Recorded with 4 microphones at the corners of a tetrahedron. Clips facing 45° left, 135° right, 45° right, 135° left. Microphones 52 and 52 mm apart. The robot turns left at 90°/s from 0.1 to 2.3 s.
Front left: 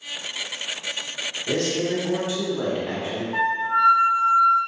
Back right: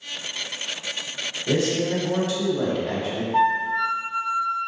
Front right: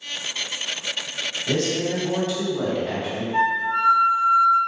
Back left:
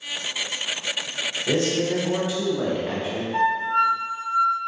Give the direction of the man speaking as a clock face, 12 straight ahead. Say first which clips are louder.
Back right 1 dB, back left 1 dB; 7 o'clock.